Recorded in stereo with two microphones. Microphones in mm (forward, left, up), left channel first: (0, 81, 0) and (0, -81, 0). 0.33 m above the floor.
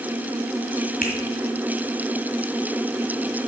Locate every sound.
1.0 s a finger snap: 55° left (ahead or behind), 1.7 m